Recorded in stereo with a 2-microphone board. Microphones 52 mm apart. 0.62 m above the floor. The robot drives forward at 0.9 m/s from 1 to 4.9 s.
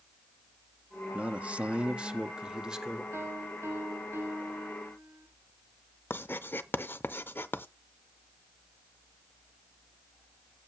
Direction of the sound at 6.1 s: 45° left (ahead or behind).